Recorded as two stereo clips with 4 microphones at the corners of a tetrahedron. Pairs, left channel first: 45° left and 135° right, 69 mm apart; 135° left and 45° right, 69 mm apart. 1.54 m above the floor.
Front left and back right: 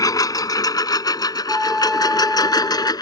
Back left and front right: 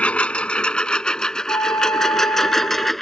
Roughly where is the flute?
Behind left.